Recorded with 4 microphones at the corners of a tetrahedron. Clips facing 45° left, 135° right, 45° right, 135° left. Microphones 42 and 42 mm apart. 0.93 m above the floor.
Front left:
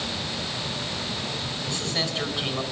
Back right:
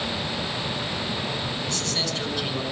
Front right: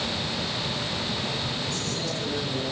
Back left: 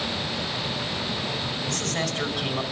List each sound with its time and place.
1.6 s a man speaking: 110° left, 5.5 m